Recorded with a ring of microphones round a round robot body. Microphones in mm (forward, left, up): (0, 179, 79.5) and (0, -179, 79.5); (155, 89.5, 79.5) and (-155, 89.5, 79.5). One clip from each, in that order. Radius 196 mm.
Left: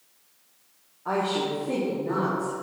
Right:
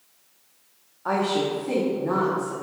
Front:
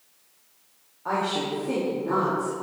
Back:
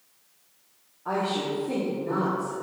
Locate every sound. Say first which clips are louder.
1.1 s a woman speaking: right 2 dB, front 1 dB; 60° right, 1.8 m